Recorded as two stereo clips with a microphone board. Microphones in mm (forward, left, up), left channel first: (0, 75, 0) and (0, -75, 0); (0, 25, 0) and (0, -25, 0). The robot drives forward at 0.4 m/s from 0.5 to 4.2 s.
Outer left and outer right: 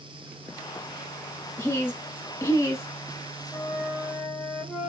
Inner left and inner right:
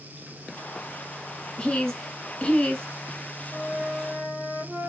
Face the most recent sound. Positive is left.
turn(degrees=0)  # may be behind; listen again after turning